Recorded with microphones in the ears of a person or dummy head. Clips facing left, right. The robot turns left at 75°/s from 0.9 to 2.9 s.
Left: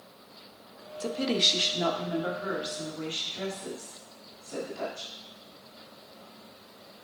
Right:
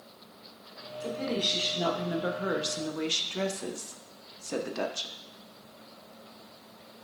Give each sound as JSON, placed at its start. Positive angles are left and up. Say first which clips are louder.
{"t": 1.0, "sound": "a woman speaking", "louder": "left 3 dB", "azimuth_deg": 65, "distance_m": 1.0}